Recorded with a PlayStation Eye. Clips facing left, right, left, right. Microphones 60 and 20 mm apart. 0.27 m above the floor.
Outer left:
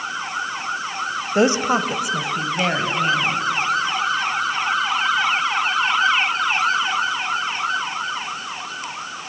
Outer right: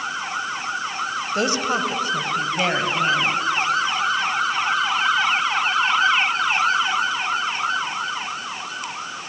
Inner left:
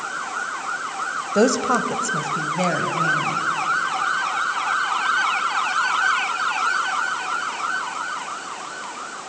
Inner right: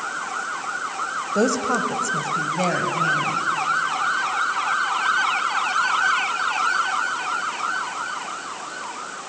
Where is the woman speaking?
25° left (ahead or behind), 1.3 m; by 3.5 s 10° right (ahead or behind), 2.5 m.